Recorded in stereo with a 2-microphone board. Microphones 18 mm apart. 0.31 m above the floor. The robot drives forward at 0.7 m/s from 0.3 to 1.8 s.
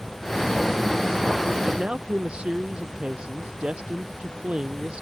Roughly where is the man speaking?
Right.